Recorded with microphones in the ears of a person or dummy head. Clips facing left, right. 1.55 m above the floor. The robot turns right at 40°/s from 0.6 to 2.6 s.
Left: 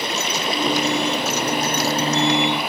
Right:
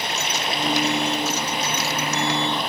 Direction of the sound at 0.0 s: 95° left.